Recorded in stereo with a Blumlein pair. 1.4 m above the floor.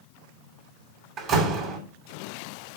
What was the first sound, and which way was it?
A door slam, 30° right.